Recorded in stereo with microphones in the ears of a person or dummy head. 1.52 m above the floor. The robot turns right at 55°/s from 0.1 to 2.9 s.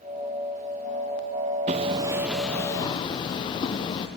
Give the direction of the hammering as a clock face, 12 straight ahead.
1 o'clock.